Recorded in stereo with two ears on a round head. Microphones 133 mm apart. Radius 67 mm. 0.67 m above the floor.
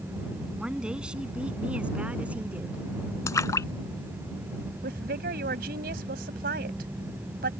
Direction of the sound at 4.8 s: 70° right (ahead or behind).